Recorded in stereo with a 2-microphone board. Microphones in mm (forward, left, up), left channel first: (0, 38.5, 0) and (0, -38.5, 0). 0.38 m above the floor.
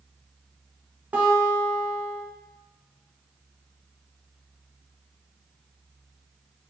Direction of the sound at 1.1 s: 20° right (ahead or behind).